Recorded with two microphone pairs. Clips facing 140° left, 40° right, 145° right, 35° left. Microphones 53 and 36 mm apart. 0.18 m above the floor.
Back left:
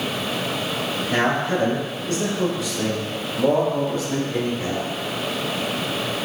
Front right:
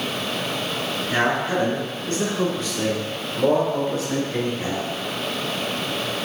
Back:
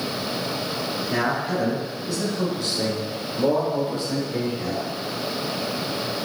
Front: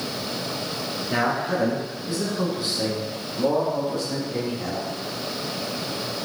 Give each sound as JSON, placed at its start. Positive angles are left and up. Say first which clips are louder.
{"t": 1.1, "sound": "a man speaking", "louder": "even, front 1 dB", "azimuth_deg": 30, "distance_m": 1.6}